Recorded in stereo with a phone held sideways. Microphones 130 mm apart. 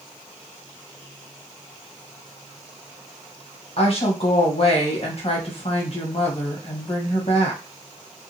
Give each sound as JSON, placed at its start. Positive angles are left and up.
{"t": 3.8, "sound": "a woman speaking", "side_deg": 45, "distance_m": 1.1}